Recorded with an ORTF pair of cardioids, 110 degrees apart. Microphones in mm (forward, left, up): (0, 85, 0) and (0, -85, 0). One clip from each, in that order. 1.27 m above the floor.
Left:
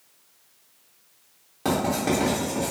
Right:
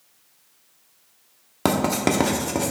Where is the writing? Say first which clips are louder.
Right 3 dB; 60° right, 0.7 m.